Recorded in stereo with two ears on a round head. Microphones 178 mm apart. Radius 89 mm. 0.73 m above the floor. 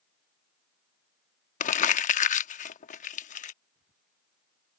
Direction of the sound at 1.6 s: 40° left (ahead or behind).